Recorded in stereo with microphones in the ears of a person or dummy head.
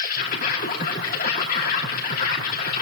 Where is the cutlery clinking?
I don't hear cutlery clinking.